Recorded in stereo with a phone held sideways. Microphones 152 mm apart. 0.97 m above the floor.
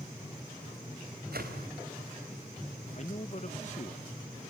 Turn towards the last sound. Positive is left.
turn(degrees=50)  # may be behind; listen again after turning